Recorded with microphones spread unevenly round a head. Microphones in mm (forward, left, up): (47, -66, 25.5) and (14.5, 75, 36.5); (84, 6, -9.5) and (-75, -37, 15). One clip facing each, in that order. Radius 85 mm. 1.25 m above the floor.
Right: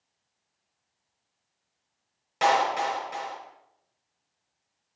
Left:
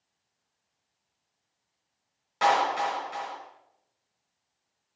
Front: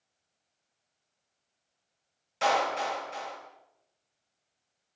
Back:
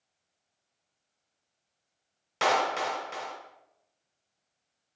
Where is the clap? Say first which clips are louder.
Right 1 dB, even; 150° right, 4 m.